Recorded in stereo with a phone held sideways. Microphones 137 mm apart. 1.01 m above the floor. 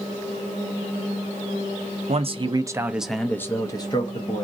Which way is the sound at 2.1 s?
50° right (ahead or behind).